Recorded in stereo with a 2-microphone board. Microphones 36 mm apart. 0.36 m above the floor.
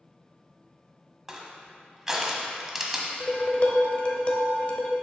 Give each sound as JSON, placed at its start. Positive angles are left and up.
{"t": 1.3, "sound": "crushing", "side_deg": -15, "distance_m": 1.0}
{"t": 3.2, "sound": "dishes clattering", "side_deg": 35, "distance_m": 0.8}